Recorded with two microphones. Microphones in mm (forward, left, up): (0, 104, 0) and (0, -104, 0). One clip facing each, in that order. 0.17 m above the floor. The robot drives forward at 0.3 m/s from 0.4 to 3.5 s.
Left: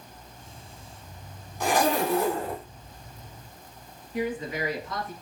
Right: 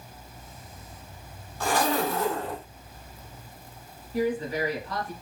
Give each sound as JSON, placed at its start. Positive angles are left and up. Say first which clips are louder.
{"t": 1.6, "sound": "a zipper", "louder": "left 2 dB", "side_deg": 15, "distance_m": 0.7}
{"t": 4.1, "sound": "a woman speaking", "louder": "right 3 dB", "side_deg": -40, "distance_m": 1.3}